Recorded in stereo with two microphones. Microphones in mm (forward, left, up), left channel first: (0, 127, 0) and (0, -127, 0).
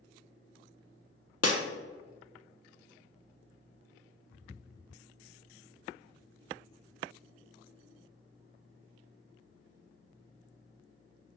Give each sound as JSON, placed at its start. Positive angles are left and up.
{"t": 1.4, "sound": "breaking glass", "side_deg": 65, "distance_m": 0.8}